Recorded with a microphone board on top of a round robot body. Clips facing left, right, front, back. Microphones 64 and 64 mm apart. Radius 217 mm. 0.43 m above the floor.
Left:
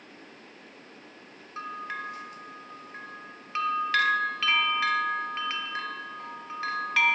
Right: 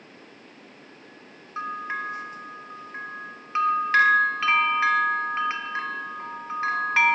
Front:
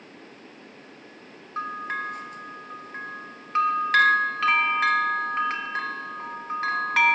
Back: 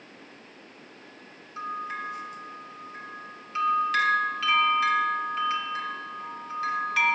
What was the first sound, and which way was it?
A bell, 30° right.